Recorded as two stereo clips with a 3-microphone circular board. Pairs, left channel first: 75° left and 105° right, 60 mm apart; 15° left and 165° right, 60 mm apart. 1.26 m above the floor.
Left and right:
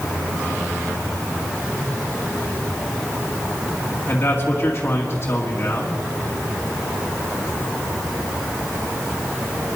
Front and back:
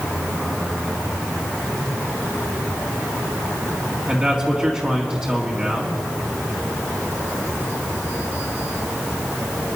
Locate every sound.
4.1 s a man speaking: 125° left, 2.0 m